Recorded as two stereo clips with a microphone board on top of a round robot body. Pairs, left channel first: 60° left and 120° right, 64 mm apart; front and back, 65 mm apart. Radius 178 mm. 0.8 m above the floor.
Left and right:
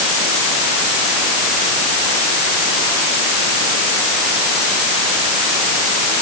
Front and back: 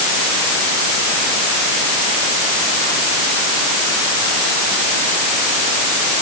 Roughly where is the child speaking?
No child speaking in this recording.